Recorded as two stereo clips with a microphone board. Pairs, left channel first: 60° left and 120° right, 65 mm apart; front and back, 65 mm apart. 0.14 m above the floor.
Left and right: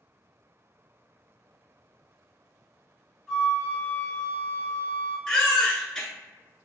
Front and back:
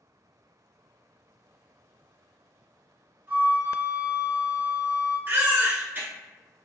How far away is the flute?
About 1.9 m.